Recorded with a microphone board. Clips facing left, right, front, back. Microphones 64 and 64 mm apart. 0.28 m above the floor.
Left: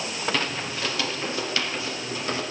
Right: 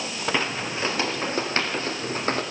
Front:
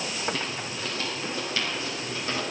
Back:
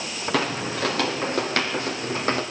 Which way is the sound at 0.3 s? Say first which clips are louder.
Right 2 dB, back 8 dB; 165° right.